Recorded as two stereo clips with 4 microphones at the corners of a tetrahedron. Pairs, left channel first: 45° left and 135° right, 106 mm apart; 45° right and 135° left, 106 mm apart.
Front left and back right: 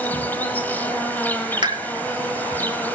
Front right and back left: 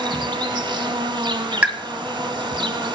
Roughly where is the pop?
Behind right.